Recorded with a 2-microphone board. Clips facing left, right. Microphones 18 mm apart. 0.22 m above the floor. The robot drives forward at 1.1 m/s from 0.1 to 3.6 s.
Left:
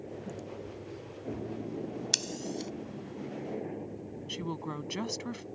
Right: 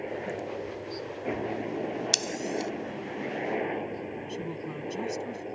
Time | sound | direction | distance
0.0 | a helicopter | 65° right (ahead or behind) | ?
2.1 | scissors | 15° right (ahead or behind) | ?
4.3 | a woman speaking | 30° left (ahead or behind) | ?